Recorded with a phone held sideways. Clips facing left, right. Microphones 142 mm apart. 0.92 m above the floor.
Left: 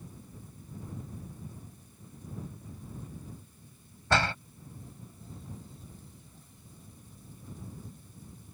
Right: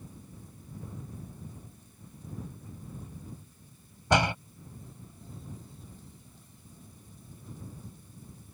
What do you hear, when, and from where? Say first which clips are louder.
4.1 s a door slam: right 3 dB; 15° right (ahead or behind)